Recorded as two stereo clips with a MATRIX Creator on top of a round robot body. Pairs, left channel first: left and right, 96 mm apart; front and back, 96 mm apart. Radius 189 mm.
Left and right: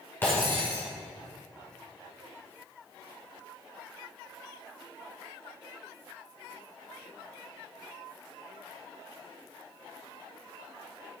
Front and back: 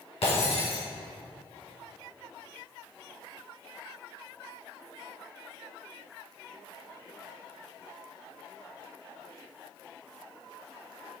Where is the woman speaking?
No woman speaking in this recording.